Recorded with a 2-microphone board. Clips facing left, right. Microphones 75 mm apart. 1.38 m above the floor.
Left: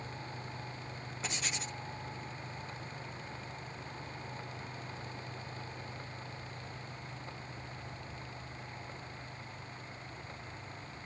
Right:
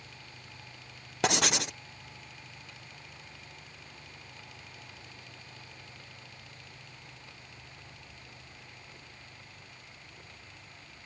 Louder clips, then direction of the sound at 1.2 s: Right 12 dB; 75° right (ahead or behind).